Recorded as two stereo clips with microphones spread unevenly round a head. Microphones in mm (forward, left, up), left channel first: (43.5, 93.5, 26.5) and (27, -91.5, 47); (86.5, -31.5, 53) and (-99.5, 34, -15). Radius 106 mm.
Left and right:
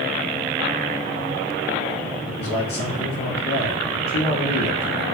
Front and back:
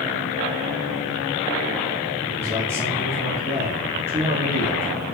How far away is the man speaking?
About 2 m.